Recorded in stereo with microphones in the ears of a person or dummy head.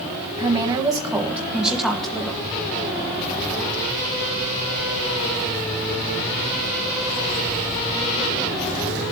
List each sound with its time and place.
0.4 s a woman speaking: 30° right (ahead or behind), 1.9 m; by 2.4 s 10° left (ahead or behind), 2 m